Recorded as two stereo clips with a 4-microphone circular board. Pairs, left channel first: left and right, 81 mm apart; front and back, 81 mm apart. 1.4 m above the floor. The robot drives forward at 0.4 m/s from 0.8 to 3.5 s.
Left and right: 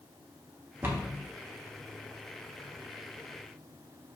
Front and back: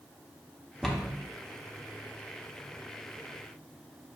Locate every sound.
0.8 s a cupboard door: 85° right, 0.8 m; by 1.2 s 110° right, 0.8 m